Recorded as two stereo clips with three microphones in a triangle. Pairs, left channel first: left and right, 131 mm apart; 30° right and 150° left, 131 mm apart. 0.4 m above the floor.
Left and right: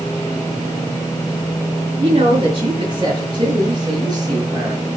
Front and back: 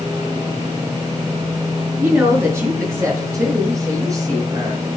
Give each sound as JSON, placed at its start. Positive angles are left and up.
{"t": 2.0, "sound": "a woman speaking", "azimuth_deg": -140, "distance_m": 5.5}